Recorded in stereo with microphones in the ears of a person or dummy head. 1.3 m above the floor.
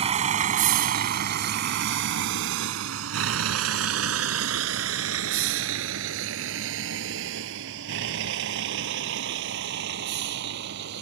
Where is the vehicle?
35° right (ahead or behind); by 11.0 s 60° right (ahead or behind).